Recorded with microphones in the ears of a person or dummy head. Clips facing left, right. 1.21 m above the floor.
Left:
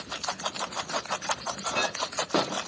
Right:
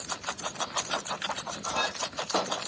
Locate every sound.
1.6 s a clink: 35° left (ahead or behind), 0.7 m